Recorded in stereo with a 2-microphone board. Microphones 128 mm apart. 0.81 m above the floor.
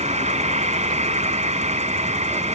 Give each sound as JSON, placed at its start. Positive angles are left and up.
{"t": 0.0, "sound": "an insect", "side_deg": -60}